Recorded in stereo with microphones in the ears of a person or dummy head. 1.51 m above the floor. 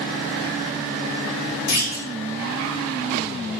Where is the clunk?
85° left, 2.0 m.